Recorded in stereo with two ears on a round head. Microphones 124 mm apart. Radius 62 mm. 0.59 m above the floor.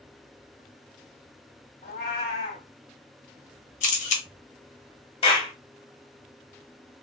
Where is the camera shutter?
55° left (ahead or behind), 1.0 m.